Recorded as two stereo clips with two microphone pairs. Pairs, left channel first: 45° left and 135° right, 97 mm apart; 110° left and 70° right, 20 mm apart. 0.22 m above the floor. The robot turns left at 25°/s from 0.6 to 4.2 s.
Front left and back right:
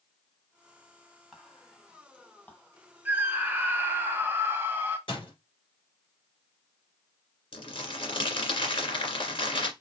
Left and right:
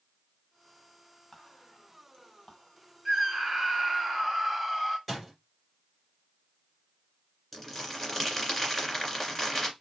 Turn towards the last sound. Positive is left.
turn(degrees=25)